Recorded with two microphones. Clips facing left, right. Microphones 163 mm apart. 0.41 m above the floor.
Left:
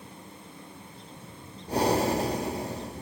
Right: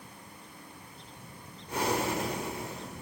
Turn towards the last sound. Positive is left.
turn(degrees=30)  # may be behind; listen again after turning